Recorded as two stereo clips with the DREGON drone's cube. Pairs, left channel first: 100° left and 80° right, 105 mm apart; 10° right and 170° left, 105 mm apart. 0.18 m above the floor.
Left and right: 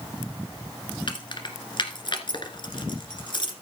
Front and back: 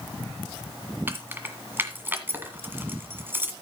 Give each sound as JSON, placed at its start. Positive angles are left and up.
{"t": 1.1, "sound": "keys jangling", "azimuth_deg": 105, "distance_m": 1.5}